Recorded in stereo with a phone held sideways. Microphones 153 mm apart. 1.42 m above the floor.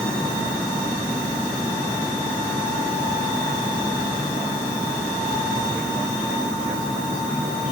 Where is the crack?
No crack in this recording.